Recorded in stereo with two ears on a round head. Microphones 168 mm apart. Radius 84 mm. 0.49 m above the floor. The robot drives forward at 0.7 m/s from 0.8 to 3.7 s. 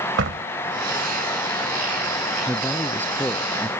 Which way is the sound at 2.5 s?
10° left (ahead or behind).